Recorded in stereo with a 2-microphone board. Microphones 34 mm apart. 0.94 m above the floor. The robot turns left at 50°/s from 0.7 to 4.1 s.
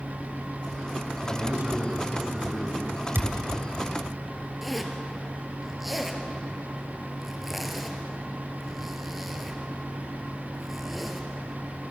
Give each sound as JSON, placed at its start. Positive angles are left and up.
{"t": 1.2, "sound": "a man speaking", "azimuth_deg": -110, "distance_m": 5.0}
{"t": 3.1, "sound": "a thud", "side_deg": -85, "distance_m": 2.0}
{"t": 4.6, "sound": "a zipper", "side_deg": -5, "distance_m": 2.5}